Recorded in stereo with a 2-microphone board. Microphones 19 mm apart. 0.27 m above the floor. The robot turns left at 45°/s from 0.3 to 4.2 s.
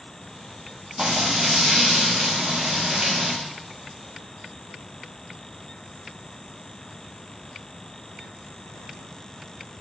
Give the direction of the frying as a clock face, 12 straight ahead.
1 o'clock.